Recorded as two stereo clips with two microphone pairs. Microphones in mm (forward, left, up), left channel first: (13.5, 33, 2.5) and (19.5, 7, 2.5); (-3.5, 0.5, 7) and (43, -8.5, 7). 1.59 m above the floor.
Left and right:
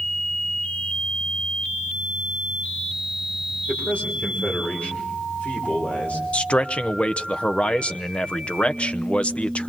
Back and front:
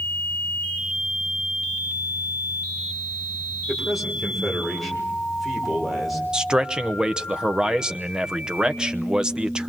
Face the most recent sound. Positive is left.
turn(degrees=60)